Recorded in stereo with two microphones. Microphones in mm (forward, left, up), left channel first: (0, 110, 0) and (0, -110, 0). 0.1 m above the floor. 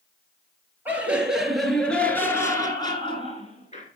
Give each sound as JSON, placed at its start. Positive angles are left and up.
{"t": 0.8, "sound": "laughter", "side_deg": -10, "distance_m": 2.0}